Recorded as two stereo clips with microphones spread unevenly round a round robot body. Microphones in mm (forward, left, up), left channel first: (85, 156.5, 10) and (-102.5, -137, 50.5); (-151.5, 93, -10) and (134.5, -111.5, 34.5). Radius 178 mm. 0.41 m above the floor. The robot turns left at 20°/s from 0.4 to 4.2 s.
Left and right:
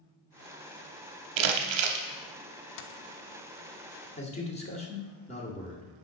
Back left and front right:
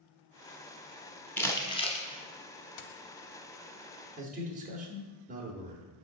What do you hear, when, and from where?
1.4 s crumpling: 130° right, 0.8 m; by 2.0 s 145° right, 0.8 m
2.8 s a dropped coin: 100° left, 0.5 m; by 3.0 s 95° left, 0.5 m
4.2 s a man speaking: 25° left, 1.1 m